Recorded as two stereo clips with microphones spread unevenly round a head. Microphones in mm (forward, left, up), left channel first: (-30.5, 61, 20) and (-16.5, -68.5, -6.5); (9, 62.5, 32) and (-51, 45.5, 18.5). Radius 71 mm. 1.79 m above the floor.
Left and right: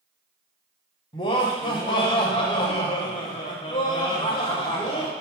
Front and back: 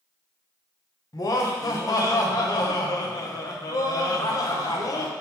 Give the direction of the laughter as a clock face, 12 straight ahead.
11 o'clock.